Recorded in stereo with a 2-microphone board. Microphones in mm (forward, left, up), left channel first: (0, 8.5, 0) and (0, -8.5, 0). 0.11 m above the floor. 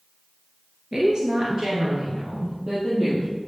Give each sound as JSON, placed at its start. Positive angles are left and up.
{"t": 0.9, "sound": "a woman speaking", "side_deg": -40, "distance_m": 1.8}